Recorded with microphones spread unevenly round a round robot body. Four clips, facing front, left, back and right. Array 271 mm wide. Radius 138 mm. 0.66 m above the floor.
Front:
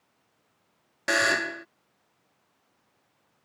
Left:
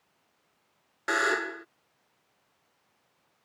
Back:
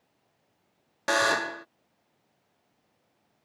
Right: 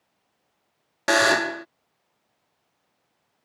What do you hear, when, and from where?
1.1 s a buzzer: 90° right